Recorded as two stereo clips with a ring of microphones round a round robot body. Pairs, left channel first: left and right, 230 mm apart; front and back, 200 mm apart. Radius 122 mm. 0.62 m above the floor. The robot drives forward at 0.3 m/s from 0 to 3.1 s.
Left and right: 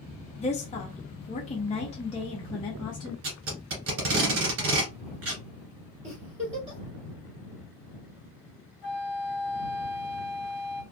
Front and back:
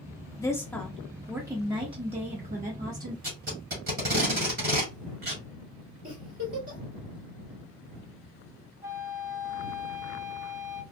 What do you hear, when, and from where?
0.4 s a woman speaking: 60° left, 0.7 m; by 3.1 s 155° left, 0.9 m
3.2 s tape being pulled: 125° right, 1.5 m
6.0 s a giggle: 150° right, 2 m
8.8 s a flute: 105° left, 0.9 m